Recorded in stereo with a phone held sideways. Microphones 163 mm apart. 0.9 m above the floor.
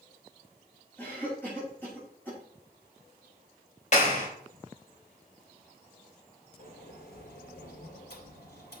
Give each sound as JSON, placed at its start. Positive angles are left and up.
{"t": 1.0, "sound": "a cough", "side_deg": 10, "distance_m": 5.0}
{"t": 3.9, "sound": "a clap", "side_deg": 50, "distance_m": 3.5}
{"t": 6.6, "sound": "a sliding door", "side_deg": 85, "distance_m": 2.0}